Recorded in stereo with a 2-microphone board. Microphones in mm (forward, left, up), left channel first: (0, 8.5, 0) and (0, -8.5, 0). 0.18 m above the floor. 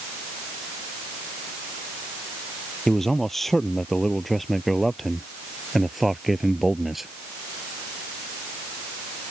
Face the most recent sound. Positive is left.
turn(degrees=-10)  # may be behind; listen again after turning